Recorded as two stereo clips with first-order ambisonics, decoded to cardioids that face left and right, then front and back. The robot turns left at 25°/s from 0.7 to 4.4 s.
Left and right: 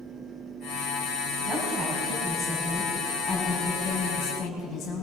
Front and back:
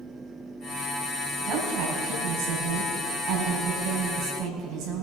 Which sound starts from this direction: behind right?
A woman speaking, at 1.4 s.